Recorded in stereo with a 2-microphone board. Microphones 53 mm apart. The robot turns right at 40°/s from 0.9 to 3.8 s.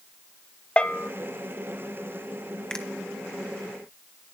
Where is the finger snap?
15° left (ahead or behind), 1.3 m; by 2.9 s 20° left (ahead or behind), 1.3 m.